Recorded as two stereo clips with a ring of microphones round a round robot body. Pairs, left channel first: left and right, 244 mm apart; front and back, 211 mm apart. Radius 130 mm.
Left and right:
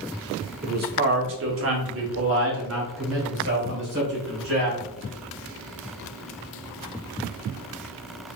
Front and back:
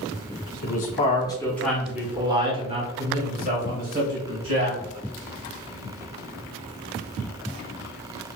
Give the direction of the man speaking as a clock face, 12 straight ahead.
1 o'clock.